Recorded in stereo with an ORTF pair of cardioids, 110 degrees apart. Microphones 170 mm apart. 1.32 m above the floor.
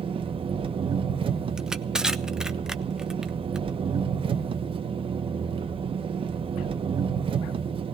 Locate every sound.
0.0 s an engine running: 30° right, 1.2 m
1.6 s crushing: 5° right, 0.8 m